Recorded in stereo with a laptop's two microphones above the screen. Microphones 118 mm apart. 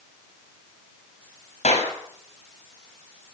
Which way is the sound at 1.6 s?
85° left.